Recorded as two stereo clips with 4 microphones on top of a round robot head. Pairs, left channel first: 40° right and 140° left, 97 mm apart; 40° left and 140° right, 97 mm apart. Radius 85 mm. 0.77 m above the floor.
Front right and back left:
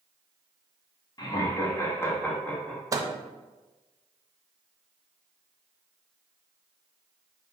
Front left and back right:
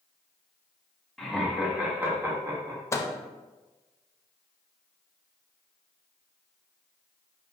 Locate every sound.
1.2 s laughter: 45° right, 1.3 m; by 2.8 s 120° right, 1.3 m
2.9 s a microwave: 95° left, 0.6 m